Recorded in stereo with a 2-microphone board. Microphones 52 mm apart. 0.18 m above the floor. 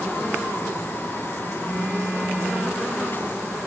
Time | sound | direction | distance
1.6 | a phone buzzing | 15° left (ahead or behind) | 7.5 m